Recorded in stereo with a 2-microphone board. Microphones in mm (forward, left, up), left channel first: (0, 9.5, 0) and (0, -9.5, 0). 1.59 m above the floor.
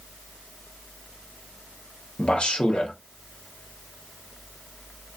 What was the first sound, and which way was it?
A man speaking, 65° left (ahead or behind).